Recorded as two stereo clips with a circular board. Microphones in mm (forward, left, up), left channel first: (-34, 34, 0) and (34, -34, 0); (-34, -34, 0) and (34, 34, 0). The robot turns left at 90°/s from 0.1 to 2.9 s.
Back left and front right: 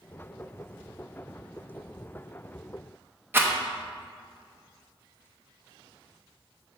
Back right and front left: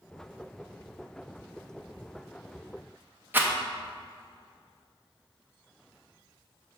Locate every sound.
3.3 s a rattle: straight ahead, 0.7 m